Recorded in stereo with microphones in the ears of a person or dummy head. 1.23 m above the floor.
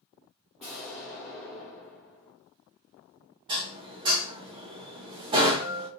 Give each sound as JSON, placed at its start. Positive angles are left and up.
{"t": 0.6, "sound": "an explosion", "side_deg": 0, "distance_m": 1.3}
{"t": 3.5, "sound": "dishes clattering", "side_deg": -35, "distance_m": 0.6}